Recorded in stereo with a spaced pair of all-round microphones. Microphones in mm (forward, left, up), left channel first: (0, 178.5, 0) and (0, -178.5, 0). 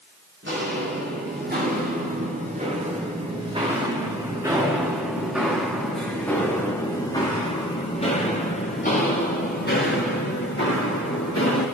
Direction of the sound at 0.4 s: 30° right (ahead or behind).